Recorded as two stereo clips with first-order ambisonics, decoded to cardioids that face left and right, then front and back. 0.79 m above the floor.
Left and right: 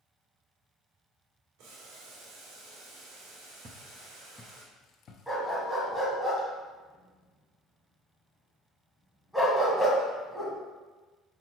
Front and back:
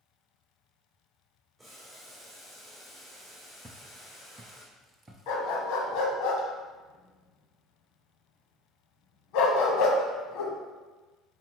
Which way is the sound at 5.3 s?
Straight ahead.